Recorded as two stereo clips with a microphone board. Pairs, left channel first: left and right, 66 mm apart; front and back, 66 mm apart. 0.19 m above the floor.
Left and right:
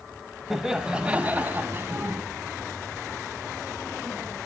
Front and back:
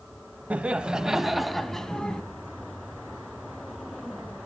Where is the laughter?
165° right, 1.3 m; by 2.2 s 70° right, 1.6 m.